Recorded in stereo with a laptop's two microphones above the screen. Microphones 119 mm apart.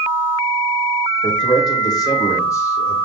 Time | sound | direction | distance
1.2 | a man speaking | 45° left (ahead or behind) | 5 m